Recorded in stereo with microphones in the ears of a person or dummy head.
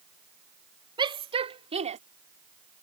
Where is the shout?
20° right (ahead or behind); by 2.0 s 30° right (ahead or behind).